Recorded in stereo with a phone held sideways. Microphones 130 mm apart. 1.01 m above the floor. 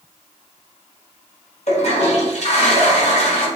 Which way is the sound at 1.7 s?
55° left (ahead or behind).